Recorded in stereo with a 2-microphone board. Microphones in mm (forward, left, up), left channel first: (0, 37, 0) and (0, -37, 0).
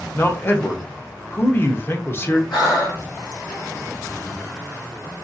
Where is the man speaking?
30° left (ahead or behind), 0.6 m.